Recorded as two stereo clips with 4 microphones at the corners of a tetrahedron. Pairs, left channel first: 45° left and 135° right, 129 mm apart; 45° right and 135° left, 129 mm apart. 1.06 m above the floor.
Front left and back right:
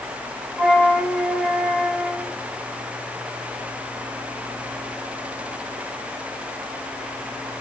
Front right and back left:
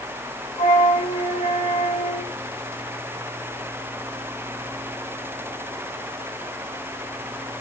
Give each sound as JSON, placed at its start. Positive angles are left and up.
{"t": 0.6, "sound": "a flute", "azimuth_deg": -50, "distance_m": 1.2}